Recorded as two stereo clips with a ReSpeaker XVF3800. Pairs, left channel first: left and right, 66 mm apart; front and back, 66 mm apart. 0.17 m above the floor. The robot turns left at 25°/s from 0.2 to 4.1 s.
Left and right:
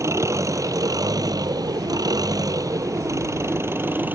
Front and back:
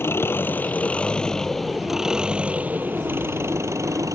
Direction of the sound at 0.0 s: 50° right.